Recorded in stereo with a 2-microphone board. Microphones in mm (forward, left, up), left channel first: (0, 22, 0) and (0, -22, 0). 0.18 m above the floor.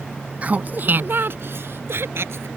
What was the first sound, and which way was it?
Laughter, 35° right (ahead or behind).